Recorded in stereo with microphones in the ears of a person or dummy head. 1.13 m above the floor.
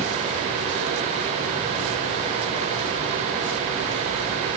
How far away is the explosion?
No explosion in this recording.